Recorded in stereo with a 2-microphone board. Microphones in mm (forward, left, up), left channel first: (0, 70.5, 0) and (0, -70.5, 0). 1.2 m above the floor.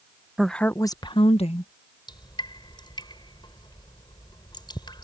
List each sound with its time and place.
0.4 s a woman speaking: centre (ahead or behind); by 1.7 s 55° left (ahead or behind)
2.1 s dripping: 30° left (ahead or behind)